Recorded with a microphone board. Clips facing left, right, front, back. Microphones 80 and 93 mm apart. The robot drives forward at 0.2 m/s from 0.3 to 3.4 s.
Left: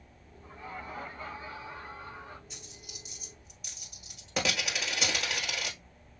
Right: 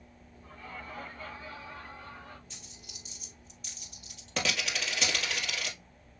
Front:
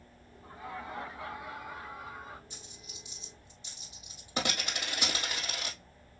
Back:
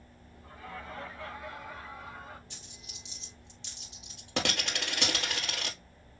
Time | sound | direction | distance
0.4 | laughter | 45° left | 1.5 m
2.5 | a dropped coin | 170° left | 2.5 m